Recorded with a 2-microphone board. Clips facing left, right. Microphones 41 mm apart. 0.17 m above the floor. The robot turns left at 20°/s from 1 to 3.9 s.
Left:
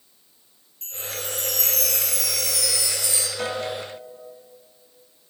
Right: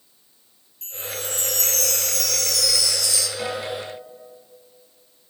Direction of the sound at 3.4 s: 25° left (ahead or behind).